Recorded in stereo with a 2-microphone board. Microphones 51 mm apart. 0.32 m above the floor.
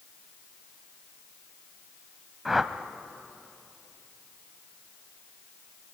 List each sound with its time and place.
2.5 s a whoosh: 5° right (ahead or behind), 0.7 m